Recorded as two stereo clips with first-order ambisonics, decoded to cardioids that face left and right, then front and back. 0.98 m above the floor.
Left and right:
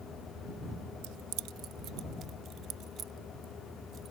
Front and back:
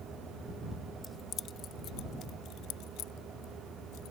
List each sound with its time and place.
1.0 s keys jangling: 85° right; by 4.1 s 30° right